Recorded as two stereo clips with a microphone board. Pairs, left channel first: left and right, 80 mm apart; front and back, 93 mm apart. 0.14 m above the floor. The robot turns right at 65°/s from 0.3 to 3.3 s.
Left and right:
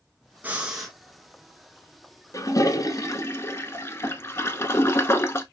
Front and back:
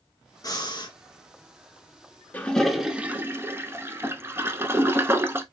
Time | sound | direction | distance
0.4 | breathing | 30° right | 1.1 m
2.3 | a toilet flushing | 65° left | 0.7 m